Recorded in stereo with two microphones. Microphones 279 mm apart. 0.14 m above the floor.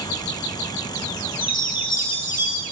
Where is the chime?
70° left (ahead or behind), 1.3 m.